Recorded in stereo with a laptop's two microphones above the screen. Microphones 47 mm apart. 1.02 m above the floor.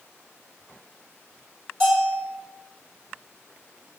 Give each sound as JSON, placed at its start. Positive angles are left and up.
{"t": 1.8, "sound": "a bell", "side_deg": 15, "distance_m": 1.4}